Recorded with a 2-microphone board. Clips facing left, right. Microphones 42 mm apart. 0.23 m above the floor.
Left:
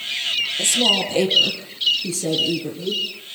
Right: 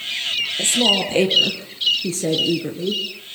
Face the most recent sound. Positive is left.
turn(degrees=-45)  # may be behind; listen again after turning